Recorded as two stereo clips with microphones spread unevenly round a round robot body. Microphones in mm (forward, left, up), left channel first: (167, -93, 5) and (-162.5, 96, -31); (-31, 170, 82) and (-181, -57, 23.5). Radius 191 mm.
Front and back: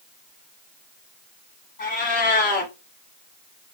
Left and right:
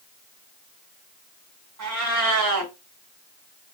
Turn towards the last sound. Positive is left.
turn(degrees=-100)